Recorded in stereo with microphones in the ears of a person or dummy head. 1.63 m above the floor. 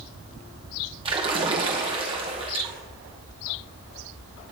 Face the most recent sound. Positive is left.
turn(degrees=-25)  # may be behind; listen again after turning